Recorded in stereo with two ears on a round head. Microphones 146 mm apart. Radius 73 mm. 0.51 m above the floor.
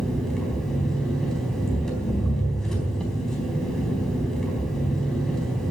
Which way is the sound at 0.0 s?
5° left (ahead or behind).